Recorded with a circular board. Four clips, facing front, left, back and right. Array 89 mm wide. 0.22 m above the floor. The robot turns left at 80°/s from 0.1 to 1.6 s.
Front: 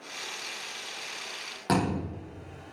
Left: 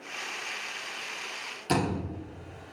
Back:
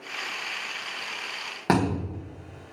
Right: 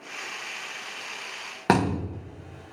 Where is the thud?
110° right, 4 m.